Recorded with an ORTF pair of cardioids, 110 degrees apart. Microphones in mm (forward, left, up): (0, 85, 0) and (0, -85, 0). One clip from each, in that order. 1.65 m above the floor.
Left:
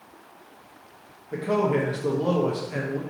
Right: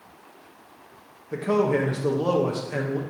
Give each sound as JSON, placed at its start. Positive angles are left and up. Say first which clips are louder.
{"t": 1.3, "sound": "a man speaking", "louder": "right 1 dB", "azimuth_deg": -15, "distance_m": 1.0}